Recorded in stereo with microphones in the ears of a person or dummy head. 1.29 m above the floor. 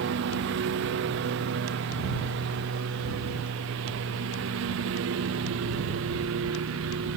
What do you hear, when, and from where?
0.0 s a lawn mower: 65° right (ahead or behind); by 7.2 s 75° right (ahead or behind)